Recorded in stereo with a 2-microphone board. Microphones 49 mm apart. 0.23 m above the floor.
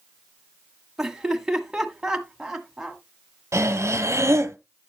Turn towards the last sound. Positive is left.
turn(degrees=-70)  # may be behind; listen again after turning